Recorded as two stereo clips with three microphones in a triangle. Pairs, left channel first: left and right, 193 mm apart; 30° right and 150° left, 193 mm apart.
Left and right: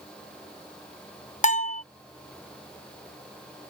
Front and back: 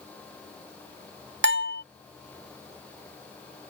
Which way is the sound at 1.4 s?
140° left.